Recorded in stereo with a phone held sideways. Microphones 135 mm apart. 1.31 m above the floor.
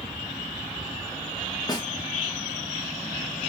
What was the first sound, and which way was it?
A snare drum, 25° left (ahead or behind).